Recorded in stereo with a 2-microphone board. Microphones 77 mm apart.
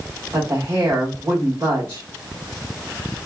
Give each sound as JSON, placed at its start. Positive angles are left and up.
{"t": 0.3, "sound": "a woman speaking", "side_deg": -45, "distance_m": 1.7}